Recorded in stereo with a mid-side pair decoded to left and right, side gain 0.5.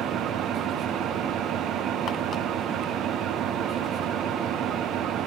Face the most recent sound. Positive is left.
turn(degrees=-65)